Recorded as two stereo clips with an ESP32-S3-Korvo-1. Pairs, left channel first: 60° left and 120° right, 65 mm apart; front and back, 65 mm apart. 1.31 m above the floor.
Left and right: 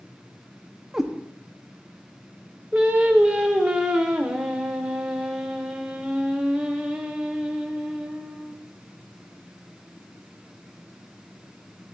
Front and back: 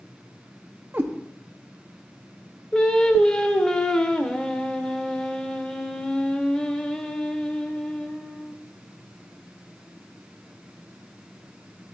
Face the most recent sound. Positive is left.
turn(degrees=-60)